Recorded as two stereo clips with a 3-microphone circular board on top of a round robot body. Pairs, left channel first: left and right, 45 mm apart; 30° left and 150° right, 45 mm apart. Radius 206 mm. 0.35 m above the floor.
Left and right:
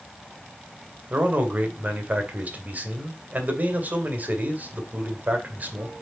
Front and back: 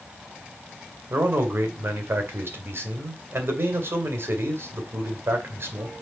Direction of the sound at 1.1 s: 135° right.